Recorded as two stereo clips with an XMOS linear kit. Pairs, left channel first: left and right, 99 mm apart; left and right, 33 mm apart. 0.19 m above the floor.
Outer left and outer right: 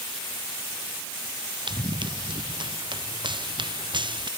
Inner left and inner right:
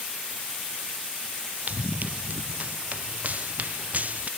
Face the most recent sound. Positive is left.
turn(degrees=-50)  # may be behind; listen again after turning